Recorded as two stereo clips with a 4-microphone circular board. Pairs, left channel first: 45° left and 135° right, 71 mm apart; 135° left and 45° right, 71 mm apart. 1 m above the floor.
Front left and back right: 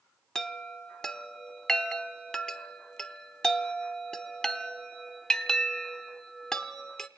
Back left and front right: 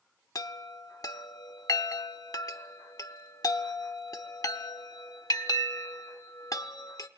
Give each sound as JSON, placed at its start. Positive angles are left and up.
{"t": 0.3, "sound": "a chime", "azimuth_deg": 125, "distance_m": 0.9}